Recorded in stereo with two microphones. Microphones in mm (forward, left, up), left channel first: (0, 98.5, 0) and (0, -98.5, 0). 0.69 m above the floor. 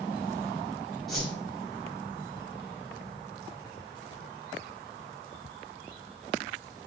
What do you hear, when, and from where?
1.1 s a whoosh: centre (ahead or behind), 1.5 m